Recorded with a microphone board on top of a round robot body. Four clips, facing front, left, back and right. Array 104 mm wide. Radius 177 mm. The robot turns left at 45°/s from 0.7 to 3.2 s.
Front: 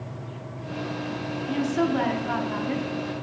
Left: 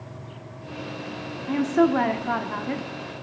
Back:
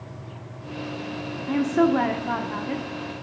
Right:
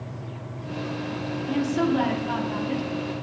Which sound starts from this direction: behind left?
A woman speaking, at 1.5 s.